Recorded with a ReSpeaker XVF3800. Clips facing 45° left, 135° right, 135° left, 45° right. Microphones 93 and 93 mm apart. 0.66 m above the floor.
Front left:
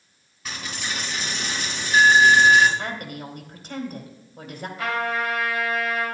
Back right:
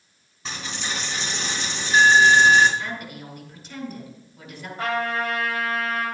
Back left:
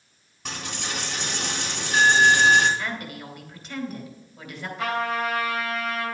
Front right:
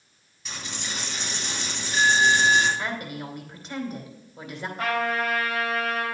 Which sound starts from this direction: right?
A trumpet, at 4.8 s.